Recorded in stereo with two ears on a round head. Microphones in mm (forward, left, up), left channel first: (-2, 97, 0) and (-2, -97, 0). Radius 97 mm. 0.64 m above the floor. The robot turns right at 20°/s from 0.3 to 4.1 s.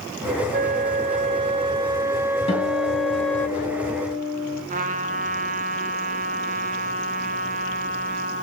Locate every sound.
0.5 s a flute: 50° right, 0.5 m; by 3.5 s 10° left, 0.5 m
2.5 s a guitar: 155° left, 7.5 m; by 4.6 s 175° right, 7.5 m
4.7 s a trumpet: 40° right (ahead or behind), 2 m